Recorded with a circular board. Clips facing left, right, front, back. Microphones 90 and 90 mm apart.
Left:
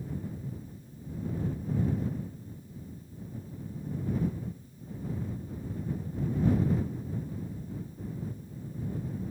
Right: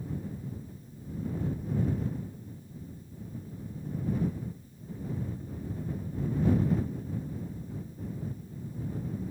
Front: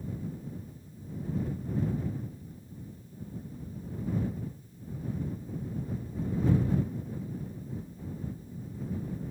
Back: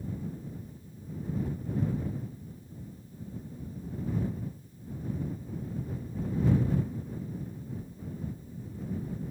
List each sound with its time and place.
Only background noise.